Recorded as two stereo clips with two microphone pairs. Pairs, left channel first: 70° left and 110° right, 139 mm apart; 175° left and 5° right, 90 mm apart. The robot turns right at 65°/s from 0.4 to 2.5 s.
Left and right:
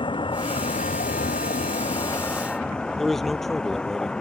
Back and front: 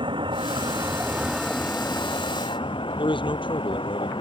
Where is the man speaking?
160° left.